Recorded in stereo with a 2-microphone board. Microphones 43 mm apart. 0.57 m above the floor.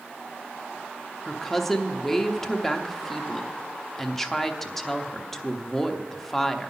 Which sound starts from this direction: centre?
A woman speaking, at 1.2 s.